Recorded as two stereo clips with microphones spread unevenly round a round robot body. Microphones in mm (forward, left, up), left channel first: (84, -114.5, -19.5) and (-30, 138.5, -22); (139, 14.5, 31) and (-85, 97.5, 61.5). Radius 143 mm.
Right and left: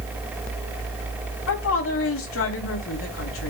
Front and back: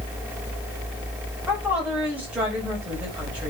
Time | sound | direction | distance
1.5 | a woman speaking | 115° right | 4.5 m